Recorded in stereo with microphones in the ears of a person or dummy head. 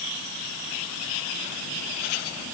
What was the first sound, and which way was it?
Only background noise.